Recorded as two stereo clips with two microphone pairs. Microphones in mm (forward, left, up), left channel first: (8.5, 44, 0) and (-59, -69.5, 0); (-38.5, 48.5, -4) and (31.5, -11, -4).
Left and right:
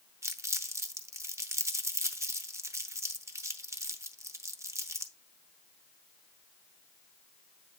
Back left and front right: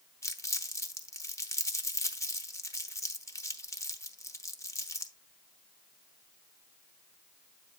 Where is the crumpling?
Straight behind, 0.7 m.